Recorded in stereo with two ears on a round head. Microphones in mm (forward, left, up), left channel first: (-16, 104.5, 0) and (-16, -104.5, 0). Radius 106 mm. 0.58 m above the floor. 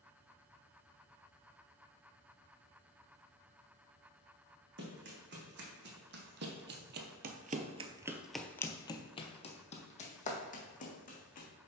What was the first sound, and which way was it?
Running footsteps, 45° right (ahead or behind).